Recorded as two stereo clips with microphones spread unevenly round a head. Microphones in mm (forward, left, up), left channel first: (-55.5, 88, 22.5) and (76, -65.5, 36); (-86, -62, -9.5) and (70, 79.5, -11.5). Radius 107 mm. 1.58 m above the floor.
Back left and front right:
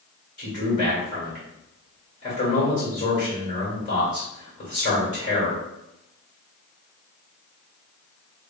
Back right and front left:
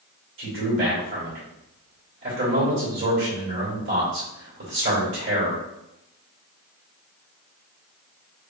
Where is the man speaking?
75° left, 2 m.